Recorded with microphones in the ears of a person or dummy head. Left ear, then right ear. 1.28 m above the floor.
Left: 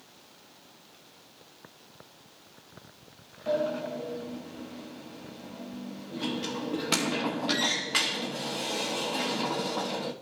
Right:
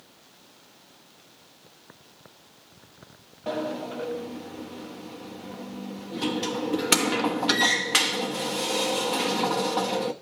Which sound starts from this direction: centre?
A sliding door, at 3.5 s.